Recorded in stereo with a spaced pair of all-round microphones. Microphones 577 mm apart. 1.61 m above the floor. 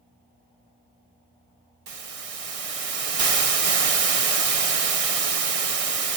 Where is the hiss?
70° right (ahead or behind).